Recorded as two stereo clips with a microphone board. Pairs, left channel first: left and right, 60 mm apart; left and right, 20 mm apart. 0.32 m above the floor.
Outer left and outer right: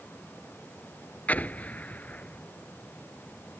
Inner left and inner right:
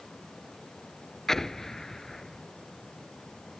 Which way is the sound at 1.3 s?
30° left (ahead or behind).